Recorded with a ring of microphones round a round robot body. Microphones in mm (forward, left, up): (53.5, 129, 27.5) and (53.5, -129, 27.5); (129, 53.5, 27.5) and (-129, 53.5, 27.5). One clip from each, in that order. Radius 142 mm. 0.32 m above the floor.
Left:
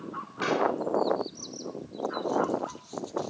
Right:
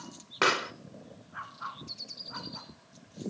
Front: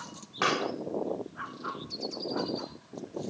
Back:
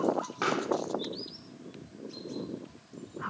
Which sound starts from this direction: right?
A pop, at 0.4 s.